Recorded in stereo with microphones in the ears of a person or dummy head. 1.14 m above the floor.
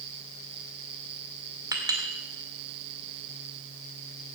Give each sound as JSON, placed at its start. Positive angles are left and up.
{"t": 1.7, "sound": "a clink", "side_deg": -20, "distance_m": 2.0}